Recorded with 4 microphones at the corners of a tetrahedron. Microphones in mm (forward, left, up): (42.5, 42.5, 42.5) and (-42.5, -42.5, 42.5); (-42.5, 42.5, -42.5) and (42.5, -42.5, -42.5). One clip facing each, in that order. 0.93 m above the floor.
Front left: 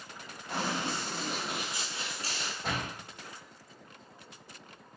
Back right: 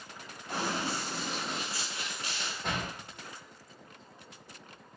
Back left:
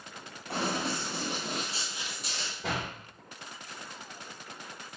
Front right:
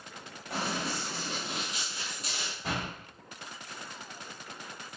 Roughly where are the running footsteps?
Behind left.